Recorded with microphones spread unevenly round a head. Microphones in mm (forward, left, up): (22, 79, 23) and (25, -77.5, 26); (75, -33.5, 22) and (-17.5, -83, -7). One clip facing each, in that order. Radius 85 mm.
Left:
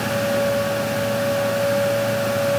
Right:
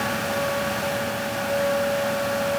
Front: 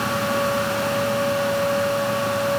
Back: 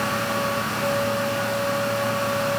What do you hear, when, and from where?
Only background noise.